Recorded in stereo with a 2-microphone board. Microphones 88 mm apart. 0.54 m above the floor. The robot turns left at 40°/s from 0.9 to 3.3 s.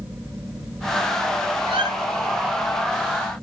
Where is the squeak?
80° right, 8 m; by 1.9 s 85° right, 8 m.